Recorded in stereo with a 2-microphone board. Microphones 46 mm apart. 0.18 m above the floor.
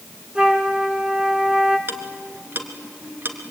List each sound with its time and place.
0.3 s a flute: 20° right (ahead or behind), 1.9 m
1.9 s ticking: 45° right (ahead or behind), 2 m